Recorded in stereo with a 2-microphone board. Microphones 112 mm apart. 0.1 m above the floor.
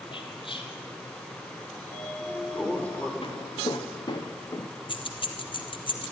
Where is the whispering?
50° left (ahead or behind), 3.5 m.